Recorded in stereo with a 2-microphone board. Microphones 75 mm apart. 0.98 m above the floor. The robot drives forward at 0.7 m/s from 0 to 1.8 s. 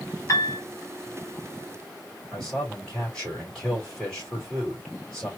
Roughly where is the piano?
Left.